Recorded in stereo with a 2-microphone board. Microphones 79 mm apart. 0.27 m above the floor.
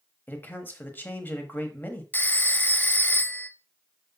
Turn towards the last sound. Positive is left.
turn(degrees=25)  # may be behind; listen again after turning